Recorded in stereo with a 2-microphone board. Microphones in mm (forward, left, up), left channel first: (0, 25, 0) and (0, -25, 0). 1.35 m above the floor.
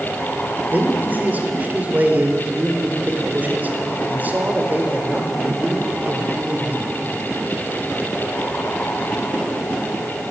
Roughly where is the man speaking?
Right.